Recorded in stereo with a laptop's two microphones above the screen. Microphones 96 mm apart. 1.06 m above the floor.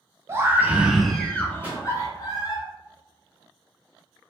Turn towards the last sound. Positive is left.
turn(degrees=-15)  # may be behind; listen again after turning